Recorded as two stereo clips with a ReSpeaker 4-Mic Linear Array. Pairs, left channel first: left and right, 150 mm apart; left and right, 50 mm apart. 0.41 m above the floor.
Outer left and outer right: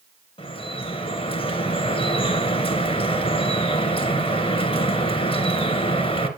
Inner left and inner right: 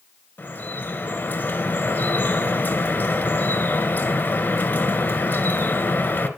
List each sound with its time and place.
0.4 s dripping: 40° left (ahead or behind), 1.9 m